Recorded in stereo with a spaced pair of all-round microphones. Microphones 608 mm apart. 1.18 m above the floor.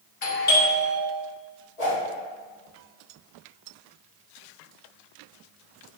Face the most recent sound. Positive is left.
turn(degrees=70)  # may be behind; listen again after turning